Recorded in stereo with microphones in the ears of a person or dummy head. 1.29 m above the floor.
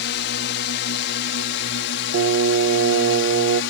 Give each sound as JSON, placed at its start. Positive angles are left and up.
{"t": 0.0, "sound": "a drone", "side_deg": 60}
{"t": 2.1, "sound": "singing", "side_deg": -70}